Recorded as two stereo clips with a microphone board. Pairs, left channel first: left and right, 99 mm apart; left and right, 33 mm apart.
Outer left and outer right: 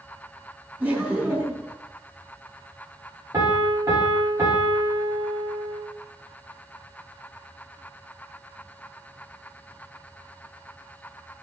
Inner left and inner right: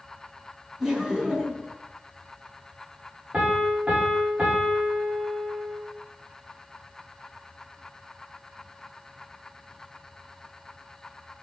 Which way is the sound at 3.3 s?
35° right (ahead or behind).